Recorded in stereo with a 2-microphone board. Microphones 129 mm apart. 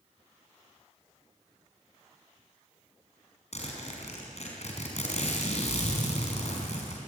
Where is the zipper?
60° left (ahead or behind), 5 m.